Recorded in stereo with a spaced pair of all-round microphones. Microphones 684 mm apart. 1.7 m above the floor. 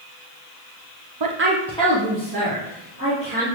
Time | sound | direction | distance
1.2 | a woman speaking | 35° right (ahead or behind) | 0.6 m